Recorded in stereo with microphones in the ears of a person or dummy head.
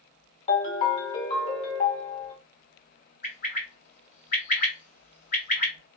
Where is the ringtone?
35° left (ahead or behind), 0.9 m.